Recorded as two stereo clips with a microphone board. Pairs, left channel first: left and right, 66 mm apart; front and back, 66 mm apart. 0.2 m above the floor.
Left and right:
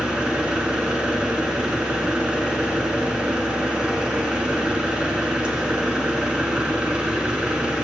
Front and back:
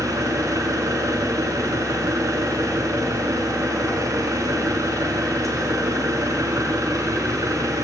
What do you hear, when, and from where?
0.0 s an engine running: 165° right, 2.5 m